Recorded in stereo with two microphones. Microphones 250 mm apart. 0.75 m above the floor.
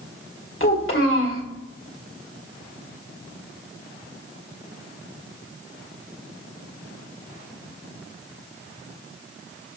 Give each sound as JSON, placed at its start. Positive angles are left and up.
{"t": 0.6, "sound": "a child speaking", "side_deg": 55, "distance_m": 2.0}